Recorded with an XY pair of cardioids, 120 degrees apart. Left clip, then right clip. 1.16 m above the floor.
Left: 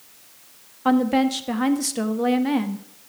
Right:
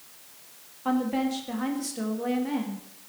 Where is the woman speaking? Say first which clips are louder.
Left 7 dB; 50° left, 1.3 m.